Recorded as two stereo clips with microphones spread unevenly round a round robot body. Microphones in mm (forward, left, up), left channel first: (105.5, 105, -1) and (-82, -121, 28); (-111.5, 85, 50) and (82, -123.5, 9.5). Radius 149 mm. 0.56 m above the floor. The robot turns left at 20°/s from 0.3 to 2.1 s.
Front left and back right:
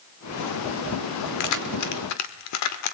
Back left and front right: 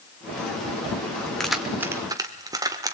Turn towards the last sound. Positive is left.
turn(degrees=25)